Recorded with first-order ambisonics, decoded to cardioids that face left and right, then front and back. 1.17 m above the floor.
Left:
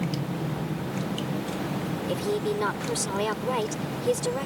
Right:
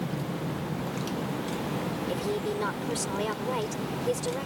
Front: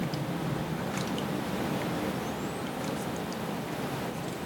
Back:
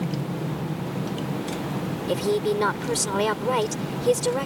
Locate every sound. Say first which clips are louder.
0.0 s an aircraft: left 2 dB, back 3 dB; 155° left; by 4.5 s 165° left
2.1 s a woman speaking: left 4 dB, back 11 dB; 170° left